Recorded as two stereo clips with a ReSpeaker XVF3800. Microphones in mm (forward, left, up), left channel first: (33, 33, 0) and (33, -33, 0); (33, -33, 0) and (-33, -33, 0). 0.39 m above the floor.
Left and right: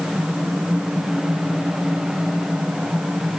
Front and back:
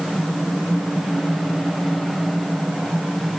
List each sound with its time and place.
Only background noise.